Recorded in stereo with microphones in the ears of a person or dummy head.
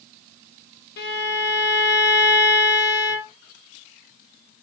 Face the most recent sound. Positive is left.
turn(degrees=60)  # may be behind; listen again after turning